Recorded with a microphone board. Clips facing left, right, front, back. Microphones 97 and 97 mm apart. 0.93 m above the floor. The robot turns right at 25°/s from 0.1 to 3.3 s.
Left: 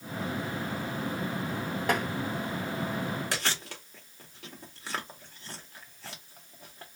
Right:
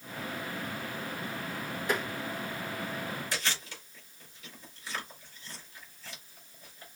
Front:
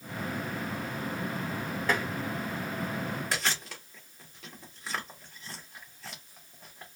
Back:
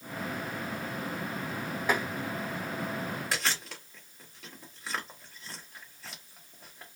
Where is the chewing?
90° left, 1.9 m.